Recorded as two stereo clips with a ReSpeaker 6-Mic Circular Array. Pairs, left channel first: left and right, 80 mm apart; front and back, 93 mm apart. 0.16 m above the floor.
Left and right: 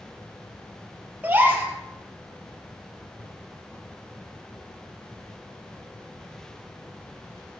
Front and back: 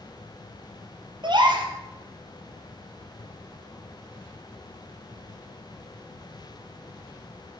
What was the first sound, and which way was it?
A gasp, 155° right.